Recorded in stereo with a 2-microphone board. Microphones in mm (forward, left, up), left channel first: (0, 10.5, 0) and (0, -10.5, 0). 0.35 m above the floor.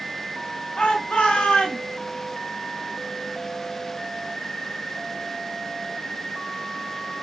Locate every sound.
0.8 s a shout: 70° left (ahead or behind), 3.5 m; by 1.8 s 65° left (ahead or behind), 3 m